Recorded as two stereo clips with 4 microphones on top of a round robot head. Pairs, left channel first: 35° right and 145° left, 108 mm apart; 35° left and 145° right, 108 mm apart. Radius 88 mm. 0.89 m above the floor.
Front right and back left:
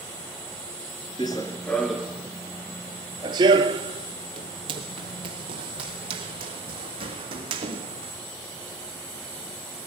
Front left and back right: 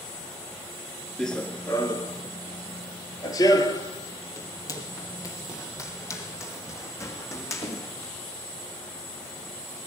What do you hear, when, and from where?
1.2 s running footsteps: 45° right, 0.9 m; by 8.1 s 100° left, 4 m